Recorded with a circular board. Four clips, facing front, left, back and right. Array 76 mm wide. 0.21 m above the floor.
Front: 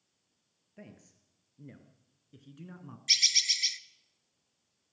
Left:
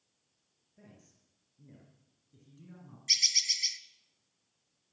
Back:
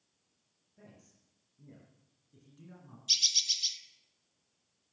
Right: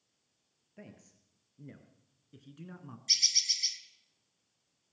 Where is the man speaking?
45° right, 3.5 m; by 3.0 s 55° right, 2 m.